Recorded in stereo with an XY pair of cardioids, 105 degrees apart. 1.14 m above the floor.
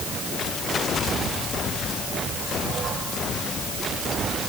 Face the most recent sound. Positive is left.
No sound to turn to.